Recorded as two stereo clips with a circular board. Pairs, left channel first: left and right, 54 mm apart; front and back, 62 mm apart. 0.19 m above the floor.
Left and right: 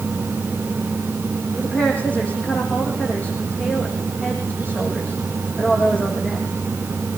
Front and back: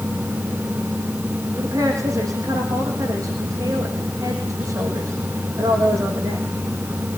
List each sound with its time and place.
1.6 s a woman speaking: 155° left, 9 m